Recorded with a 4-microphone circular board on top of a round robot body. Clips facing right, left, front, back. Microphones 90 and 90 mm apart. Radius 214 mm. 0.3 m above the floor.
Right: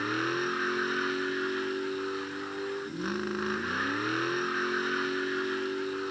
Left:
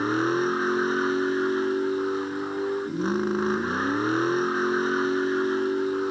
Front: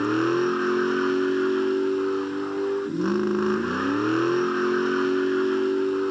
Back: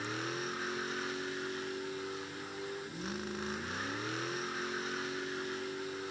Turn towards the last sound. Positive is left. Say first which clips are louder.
# left 7 dB, front 17 dB
turn(degrees=30)